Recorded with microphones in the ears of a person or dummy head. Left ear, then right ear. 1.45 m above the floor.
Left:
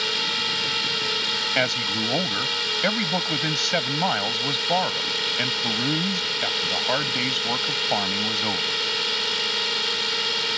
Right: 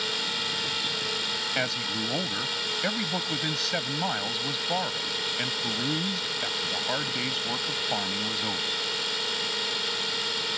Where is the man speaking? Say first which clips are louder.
Left 5 dB; 15° left (ahead or behind).